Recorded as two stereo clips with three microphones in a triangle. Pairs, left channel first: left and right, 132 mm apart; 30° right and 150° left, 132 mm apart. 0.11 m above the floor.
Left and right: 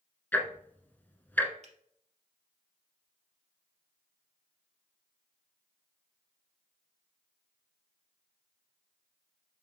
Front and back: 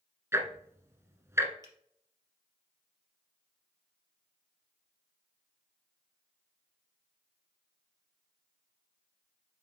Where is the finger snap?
80° right, 3 m.